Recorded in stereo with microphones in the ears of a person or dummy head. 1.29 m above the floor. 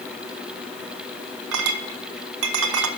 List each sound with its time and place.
1.5 s a clink: 70° right (ahead or behind), 0.9 m